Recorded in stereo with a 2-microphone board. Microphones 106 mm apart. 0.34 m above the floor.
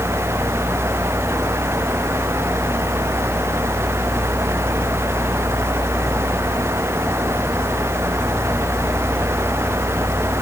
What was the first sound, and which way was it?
Only background noise.